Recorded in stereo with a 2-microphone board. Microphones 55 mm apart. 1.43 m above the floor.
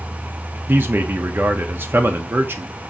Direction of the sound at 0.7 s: 40° right (ahead or behind).